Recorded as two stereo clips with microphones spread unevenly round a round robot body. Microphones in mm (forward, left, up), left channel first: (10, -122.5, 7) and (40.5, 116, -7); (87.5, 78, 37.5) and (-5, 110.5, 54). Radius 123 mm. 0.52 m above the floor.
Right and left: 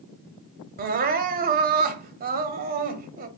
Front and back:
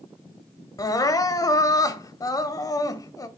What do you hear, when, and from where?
0.8 s crying: 30° left, 0.7 m